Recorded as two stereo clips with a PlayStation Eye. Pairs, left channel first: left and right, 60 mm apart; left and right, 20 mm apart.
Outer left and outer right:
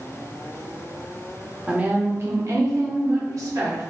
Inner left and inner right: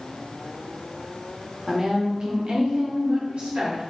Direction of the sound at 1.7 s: 15° right (ahead or behind).